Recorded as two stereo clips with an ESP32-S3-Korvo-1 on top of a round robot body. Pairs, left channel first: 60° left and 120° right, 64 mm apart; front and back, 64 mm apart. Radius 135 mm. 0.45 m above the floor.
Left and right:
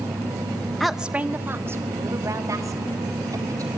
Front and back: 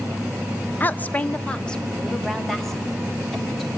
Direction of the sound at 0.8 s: 20° right.